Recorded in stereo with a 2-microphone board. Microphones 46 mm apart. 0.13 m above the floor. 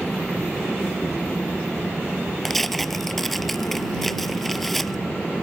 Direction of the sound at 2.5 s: 5° left (ahead or behind).